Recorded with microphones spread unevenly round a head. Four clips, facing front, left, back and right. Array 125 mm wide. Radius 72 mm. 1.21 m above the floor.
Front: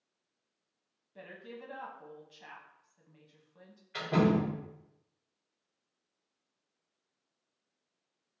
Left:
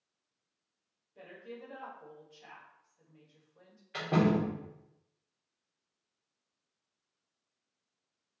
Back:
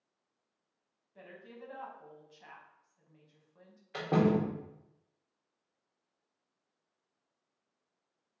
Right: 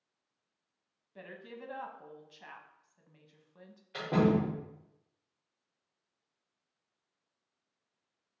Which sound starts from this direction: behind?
A door slam, at 3.9 s.